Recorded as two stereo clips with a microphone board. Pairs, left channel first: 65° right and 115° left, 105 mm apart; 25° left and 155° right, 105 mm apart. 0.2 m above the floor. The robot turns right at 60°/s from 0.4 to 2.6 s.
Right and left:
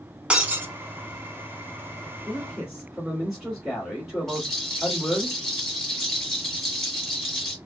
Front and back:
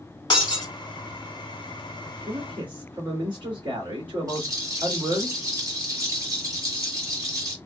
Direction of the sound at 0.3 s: 35° left.